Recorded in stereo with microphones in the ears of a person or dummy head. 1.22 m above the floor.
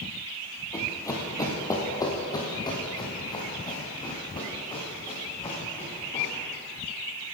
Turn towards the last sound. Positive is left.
turn(degrees=30)  # may be behind; listen again after turning